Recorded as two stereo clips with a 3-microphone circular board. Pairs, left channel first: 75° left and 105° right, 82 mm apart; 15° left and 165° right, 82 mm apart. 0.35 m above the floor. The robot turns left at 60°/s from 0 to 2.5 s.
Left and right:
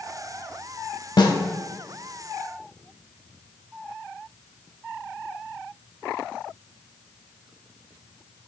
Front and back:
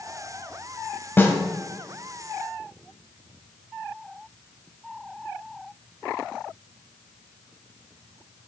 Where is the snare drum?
75° left, 0.9 m; by 1.4 s 65° left, 0.9 m.